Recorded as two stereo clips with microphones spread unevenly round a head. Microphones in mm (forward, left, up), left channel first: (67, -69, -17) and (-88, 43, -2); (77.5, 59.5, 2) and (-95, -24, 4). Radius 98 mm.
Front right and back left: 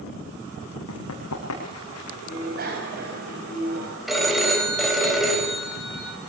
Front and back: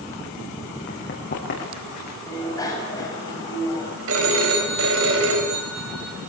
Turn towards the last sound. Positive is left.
turn(degrees=-125)